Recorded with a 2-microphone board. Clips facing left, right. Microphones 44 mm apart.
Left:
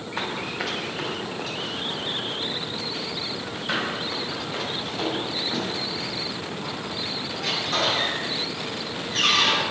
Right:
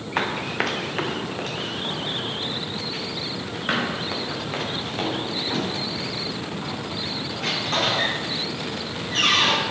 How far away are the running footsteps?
About 1.3 m.